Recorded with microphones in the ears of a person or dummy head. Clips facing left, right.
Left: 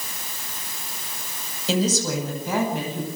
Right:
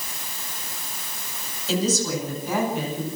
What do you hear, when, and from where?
1.7 s a woman speaking: 70° left (ahead or behind), 9.5 m; by 3.1 s 80° left, 11 m